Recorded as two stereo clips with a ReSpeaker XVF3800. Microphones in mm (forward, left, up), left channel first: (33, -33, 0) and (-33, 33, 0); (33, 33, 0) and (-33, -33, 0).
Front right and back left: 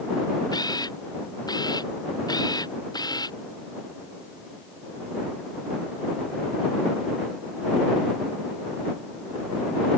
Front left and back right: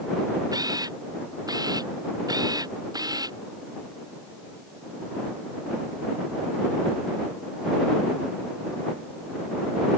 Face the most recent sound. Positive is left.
turn(degrees=-90)